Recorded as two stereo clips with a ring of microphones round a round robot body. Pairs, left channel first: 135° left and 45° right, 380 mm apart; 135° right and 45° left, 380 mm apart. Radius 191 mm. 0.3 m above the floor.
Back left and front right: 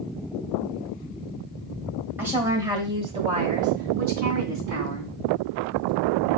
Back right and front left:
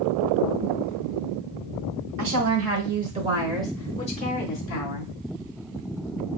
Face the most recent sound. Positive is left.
turn(degrees=-105)